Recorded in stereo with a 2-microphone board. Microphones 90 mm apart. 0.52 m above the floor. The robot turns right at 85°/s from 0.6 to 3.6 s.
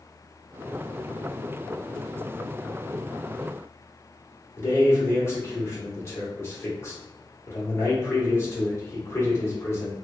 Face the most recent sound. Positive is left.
turn(degrees=30)  # may be behind; listen again after turning